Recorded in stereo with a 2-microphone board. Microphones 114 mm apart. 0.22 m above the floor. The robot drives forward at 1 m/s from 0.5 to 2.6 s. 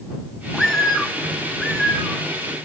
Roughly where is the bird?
Centre.